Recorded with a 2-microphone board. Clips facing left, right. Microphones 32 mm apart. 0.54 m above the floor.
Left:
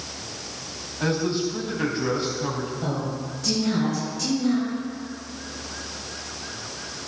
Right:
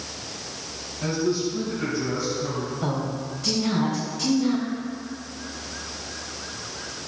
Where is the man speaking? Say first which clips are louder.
Even; 55° left (ahead or behind), 3.5 m.